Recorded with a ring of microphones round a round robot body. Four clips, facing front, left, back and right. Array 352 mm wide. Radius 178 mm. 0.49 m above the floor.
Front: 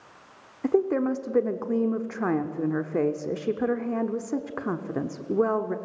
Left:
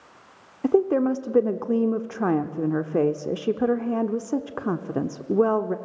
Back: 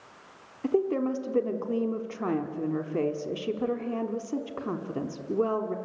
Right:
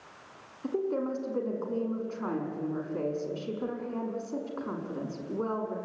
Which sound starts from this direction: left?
A woman speaking, at 0.6 s.